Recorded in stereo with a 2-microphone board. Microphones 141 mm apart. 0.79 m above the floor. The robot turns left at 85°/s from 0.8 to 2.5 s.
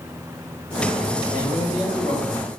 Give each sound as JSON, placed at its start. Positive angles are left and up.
{"t": 1.3, "sound": "a man speaking", "azimuth_deg": -100, "distance_m": 4.5}